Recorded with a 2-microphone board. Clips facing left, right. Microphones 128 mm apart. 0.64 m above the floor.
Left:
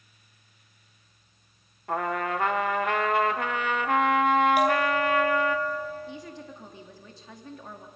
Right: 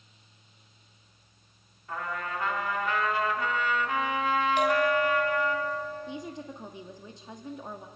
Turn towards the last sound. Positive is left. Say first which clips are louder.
# right 2 dB
turn(degrees=-20)  # may be behind; listen again after turning